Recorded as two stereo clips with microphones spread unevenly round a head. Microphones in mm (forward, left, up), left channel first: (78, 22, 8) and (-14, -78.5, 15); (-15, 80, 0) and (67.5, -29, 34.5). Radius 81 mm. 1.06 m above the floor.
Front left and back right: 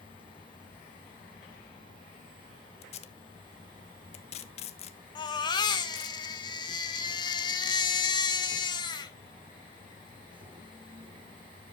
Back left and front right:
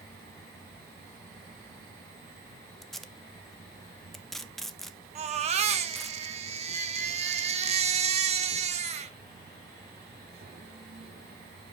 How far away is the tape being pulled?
About 0.9 m.